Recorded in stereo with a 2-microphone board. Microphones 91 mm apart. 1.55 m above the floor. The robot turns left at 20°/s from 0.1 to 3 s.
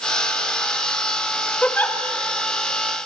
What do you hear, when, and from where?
1.6 s a giggle: 15° left (ahead or behind), 1.9 m; by 2.0 s 25° left (ahead or behind), 1.9 m